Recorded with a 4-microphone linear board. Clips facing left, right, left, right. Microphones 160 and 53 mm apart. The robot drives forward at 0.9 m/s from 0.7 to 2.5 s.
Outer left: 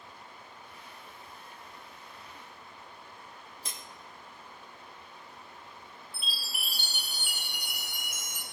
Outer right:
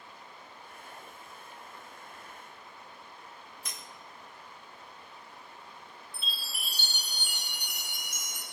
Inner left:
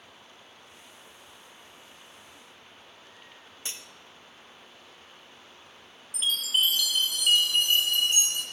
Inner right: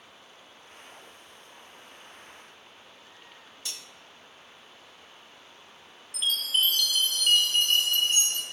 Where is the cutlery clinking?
30° left (ahead or behind), 0.6 m.